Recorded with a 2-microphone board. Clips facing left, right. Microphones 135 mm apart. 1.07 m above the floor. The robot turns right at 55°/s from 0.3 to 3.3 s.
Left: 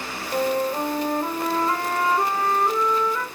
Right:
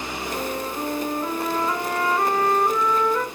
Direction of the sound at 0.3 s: 50° left.